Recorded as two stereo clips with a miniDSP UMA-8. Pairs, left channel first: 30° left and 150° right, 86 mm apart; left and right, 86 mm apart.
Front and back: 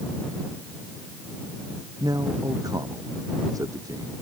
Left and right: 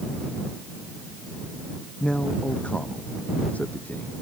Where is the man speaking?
165° left; by 4.1 s 160° left.